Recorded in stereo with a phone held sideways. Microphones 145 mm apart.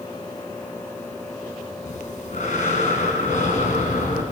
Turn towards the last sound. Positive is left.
turn(degrees=60)  # may be behind; listen again after turning